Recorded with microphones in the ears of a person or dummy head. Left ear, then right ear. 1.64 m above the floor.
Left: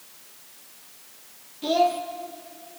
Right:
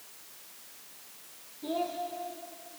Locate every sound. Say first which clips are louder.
1.6 s a child speaking: left 12 dB; 50° left (ahead or behind), 1.9 m